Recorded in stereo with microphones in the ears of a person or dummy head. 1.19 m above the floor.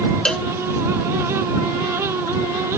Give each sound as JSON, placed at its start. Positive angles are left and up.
{"t": 0.2, "sound": "a cowbell", "side_deg": 5}